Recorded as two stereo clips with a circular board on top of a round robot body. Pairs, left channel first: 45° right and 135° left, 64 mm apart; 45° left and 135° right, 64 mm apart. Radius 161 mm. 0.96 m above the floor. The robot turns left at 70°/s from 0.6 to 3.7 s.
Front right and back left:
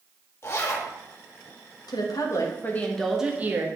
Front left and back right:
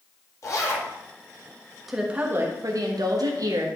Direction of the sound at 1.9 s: 50° right.